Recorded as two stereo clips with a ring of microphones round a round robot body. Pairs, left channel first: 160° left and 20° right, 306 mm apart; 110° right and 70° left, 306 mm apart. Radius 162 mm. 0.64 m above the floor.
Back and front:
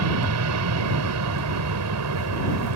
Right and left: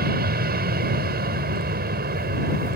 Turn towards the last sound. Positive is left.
turn(degrees=10)